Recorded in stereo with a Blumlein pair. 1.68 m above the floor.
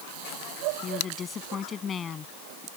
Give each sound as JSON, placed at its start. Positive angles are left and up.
{"t": 0.8, "sound": "a woman speaking", "azimuth_deg": 20}